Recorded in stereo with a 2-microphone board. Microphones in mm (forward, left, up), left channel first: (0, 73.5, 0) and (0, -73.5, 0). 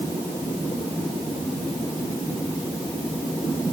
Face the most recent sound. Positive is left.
No sound to turn to.